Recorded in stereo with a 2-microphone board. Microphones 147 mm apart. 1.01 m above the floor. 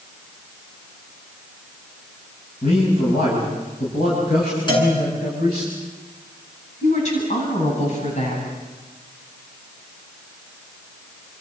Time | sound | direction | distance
2.6 | a man speaking | 75° left (ahead or behind) | 8 m
4.7 | a cowbell | 30° left (ahead or behind) | 7.5 m
6.8 | a woman speaking | 50° left (ahead or behind) | 8.5 m